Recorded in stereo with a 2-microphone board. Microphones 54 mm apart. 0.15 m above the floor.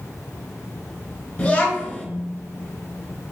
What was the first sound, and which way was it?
A child speaking, 25° left (ahead or behind).